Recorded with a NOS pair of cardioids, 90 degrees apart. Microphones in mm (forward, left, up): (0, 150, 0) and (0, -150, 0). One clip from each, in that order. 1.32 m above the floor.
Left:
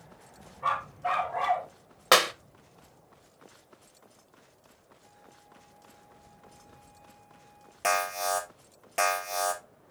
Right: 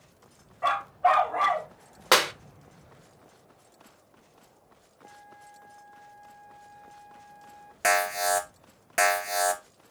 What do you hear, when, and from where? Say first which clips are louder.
0.6 s a dog barking: right 6 dB; 70° right, 3 m; by 1.7 s 55° right, 3 m
2.1 s a clap: even; 5° right, 0.7 m
5.0 s a flute: right 9 dB; 65° right, 3 m
7.8 s an alarm: right 3 dB; 30° right, 2.5 m